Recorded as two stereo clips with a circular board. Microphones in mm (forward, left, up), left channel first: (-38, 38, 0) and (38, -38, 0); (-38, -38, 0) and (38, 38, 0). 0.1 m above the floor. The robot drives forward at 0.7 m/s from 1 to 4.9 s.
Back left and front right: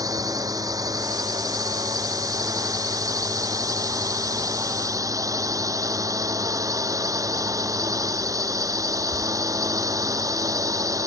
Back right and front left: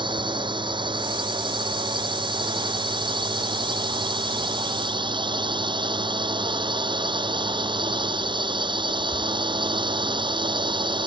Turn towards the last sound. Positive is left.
turn(degrees=10)